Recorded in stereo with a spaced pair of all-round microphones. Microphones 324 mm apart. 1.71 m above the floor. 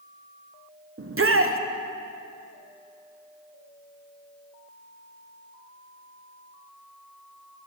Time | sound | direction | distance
1.0 | a shout | 40° right (ahead or behind) | 0.6 m